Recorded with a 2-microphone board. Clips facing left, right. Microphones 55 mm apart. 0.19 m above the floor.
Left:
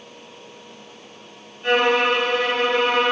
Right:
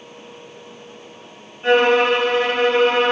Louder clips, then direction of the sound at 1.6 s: Right 3 dB; 30° right (ahead or behind).